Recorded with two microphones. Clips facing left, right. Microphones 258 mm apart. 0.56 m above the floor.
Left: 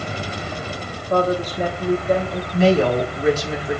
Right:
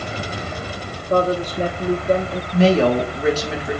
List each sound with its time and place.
1.1 s a woman speaking: 30° right (ahead or behind), 1.2 m
2.5 s a woman speaking: 75° right (ahead or behind), 3 m